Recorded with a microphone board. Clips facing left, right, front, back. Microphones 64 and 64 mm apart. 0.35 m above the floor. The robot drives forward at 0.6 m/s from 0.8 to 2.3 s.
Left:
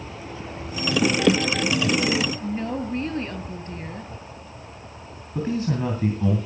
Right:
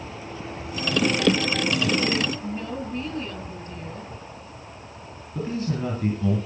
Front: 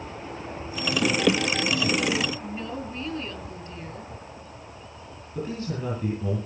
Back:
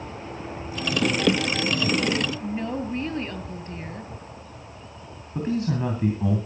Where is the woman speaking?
135° left, 2 m.